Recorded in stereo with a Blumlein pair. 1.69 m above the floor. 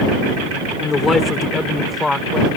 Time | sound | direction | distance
0.8 | a man speaking | 20° left | ?